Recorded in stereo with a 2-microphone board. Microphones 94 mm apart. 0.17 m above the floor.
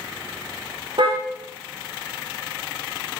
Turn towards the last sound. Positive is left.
turn(degrees=-65)  # may be behind; listen again after turning